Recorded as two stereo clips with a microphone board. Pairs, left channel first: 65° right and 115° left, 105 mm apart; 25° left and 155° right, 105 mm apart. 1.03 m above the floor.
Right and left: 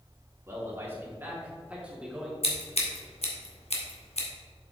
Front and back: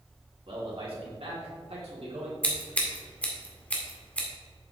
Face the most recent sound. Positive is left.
turn(degrees=-55)